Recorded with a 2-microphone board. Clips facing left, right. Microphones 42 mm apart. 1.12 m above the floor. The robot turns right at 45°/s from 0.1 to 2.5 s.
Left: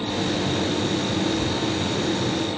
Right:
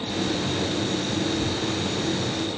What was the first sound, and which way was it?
Only background noise.